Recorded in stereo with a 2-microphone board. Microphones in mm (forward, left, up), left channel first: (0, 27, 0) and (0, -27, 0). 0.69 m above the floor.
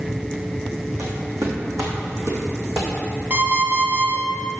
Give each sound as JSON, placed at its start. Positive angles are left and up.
{"t": 1.0, "sound": "footsteps", "side_deg": -75, "distance_m": 2.5}
{"t": 3.3, "sound": "an alarm clock", "side_deg": -40, "distance_m": 2.0}